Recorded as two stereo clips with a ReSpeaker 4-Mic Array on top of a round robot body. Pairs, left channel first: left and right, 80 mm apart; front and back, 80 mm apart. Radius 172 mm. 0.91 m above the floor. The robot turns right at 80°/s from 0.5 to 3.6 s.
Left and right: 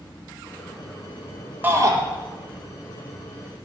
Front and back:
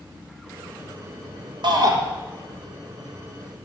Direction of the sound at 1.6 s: 155° right.